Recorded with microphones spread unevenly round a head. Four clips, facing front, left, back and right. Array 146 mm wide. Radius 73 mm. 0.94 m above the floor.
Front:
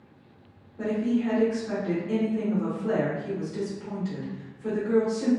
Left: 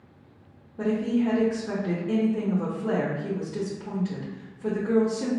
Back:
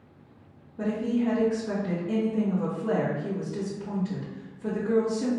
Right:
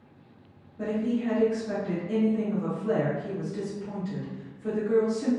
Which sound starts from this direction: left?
A woman speaking, at 0.8 s.